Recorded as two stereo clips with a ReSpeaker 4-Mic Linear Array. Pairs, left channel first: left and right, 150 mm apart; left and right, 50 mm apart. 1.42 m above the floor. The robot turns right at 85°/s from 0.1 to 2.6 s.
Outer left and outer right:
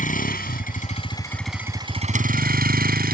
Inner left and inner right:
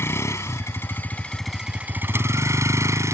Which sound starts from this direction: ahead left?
A vehicle, at 0.0 s.